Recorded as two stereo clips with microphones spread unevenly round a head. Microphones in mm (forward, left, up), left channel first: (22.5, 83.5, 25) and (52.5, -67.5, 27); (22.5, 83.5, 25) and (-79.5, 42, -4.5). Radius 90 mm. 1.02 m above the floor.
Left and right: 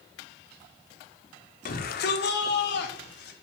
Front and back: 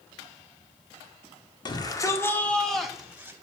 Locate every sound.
1.6 s a shout: 75° left, 2.5 m; by 3.3 s 130° left, 2.5 m